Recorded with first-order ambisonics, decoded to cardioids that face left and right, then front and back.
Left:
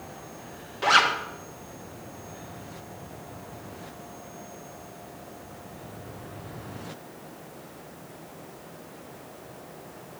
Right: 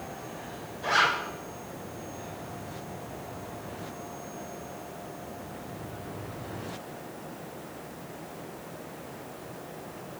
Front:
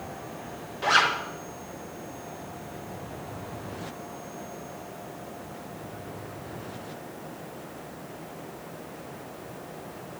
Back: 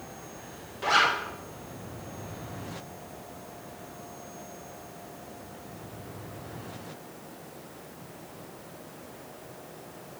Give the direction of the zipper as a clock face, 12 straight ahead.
9 o'clock.